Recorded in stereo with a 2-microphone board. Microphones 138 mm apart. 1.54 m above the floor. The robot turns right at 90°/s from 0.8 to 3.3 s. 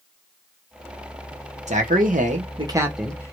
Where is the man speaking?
120° right, 0.9 m; by 3.3 s 25° left, 0.9 m.